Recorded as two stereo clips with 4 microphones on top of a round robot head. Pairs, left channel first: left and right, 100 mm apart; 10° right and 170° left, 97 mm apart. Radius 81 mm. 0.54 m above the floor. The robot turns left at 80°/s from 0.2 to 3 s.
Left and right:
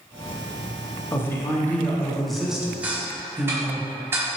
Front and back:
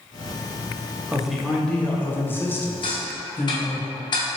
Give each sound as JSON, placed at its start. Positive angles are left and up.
{"t": 1.1, "sound": "a man speaking", "azimuth_deg": 100, "distance_m": 0.8}
{"t": 2.8, "sound": "ticking", "azimuth_deg": -15, "distance_m": 0.9}